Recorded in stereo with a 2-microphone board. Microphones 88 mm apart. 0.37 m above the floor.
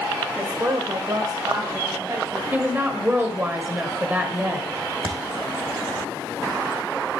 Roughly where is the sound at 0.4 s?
Right.